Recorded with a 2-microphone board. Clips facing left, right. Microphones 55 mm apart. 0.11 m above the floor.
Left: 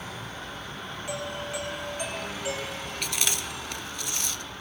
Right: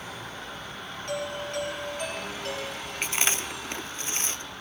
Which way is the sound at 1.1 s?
10° left (ahead or behind).